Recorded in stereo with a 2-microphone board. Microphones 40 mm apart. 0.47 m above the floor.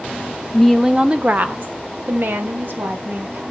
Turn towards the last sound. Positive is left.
turn(degrees=-55)  # may be behind; listen again after turning